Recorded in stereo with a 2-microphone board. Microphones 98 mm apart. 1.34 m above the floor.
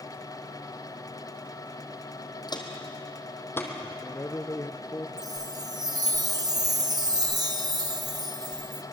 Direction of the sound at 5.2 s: 40° right (ahead or behind).